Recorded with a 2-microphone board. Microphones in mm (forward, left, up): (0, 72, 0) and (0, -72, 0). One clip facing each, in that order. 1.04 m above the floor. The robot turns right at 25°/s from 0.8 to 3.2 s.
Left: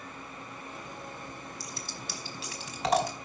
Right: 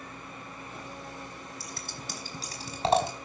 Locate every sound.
1.6 s scissors: 60° right (ahead or behind), 4.5 m; by 3.1 s 25° right (ahead or behind), 4.5 m